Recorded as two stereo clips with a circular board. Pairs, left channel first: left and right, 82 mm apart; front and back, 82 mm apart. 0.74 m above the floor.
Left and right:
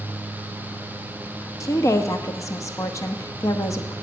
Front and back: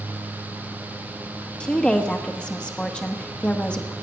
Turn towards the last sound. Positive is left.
turn(degrees=70)